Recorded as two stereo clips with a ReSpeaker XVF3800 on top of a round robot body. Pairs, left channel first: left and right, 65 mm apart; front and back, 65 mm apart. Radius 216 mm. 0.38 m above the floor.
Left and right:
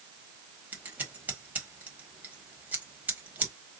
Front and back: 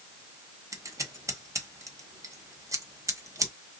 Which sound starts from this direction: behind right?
Scissors, at 0.7 s.